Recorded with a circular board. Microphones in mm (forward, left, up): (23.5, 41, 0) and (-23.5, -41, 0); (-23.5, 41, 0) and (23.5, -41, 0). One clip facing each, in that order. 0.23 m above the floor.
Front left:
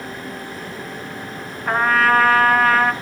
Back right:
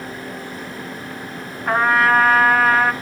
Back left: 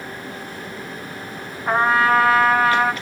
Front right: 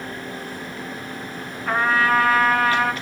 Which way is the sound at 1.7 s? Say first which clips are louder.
Back right 1 dB, back left 3 dB; 155° left.